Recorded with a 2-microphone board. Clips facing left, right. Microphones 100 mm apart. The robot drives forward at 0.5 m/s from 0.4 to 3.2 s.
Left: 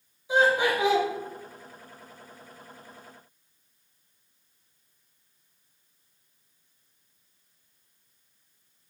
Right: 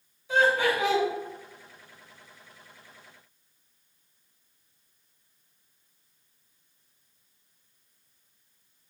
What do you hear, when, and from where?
0.3 s laughter: 15° left (ahead or behind), 1.9 m